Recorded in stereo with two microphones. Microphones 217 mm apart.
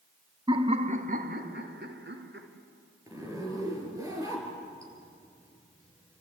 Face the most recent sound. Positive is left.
turn(degrees=-15)  # may be behind; listen again after turning